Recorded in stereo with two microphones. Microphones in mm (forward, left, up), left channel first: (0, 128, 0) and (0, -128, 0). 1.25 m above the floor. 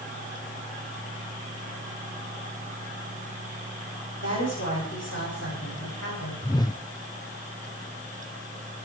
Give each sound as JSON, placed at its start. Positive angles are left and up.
{"t": 4.2, "sound": "a woman speaking", "side_deg": 65, "distance_m": 8.0}
{"t": 6.4, "sound": "a whoosh", "side_deg": 15, "distance_m": 0.5}